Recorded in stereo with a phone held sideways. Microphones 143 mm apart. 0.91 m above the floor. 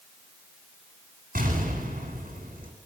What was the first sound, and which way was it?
An explosion, 75° right (ahead or behind).